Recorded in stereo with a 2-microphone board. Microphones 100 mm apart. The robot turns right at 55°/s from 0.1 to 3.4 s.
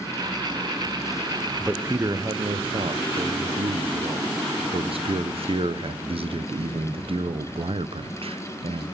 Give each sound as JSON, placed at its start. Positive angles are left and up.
{"t": 1.6, "sound": "a man speaking", "azimuth_deg": -170, "distance_m": 0.7}